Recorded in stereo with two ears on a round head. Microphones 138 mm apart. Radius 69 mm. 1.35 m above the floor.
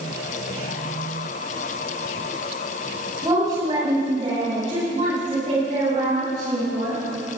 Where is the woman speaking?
20° right (ahead or behind), 5 m; by 7.0 s 65° right (ahead or behind), 8 m.